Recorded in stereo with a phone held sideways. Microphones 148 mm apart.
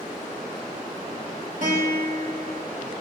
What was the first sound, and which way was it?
A guitar, 60° right (ahead or behind).